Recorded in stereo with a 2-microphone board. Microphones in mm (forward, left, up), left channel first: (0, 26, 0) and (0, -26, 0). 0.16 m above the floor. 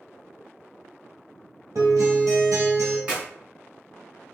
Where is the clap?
25° right (ahead or behind), 1.5 m.